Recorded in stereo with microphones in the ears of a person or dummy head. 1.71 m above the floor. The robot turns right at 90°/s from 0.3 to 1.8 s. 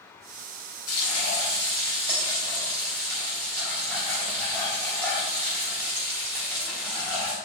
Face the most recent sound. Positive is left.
turn(degrees=170)